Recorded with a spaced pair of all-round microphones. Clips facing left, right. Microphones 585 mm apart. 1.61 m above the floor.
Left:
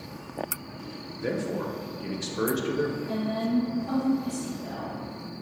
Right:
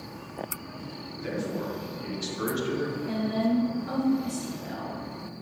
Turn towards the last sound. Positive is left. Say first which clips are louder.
# right 1 dB
turn(degrees=-90)